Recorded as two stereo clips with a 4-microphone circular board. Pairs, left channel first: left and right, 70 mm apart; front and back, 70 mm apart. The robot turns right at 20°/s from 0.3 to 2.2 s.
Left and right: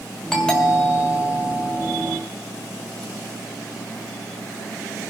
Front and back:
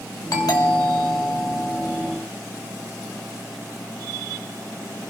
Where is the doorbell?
10° left, 2.5 m; by 2.1 s 45° left, 2.5 m.